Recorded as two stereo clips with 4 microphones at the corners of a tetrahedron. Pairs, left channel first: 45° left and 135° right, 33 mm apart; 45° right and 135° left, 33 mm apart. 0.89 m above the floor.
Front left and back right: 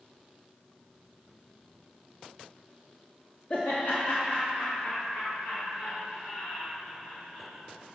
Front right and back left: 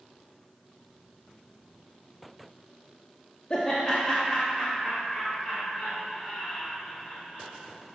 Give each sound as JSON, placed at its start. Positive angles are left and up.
{"t": 3.5, "sound": "laughter", "azimuth_deg": 15, "distance_m": 0.7}